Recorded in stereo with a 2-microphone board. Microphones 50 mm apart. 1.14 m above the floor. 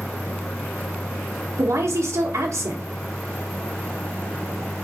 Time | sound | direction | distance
1.6 | a woman speaking | 75° right (ahead or behind) | 1.0 m